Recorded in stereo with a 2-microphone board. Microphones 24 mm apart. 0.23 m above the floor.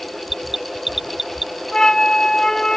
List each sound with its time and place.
0.3 s an alarm: 15° right (ahead or behind)
1.7 s a flute: 30° left (ahead or behind)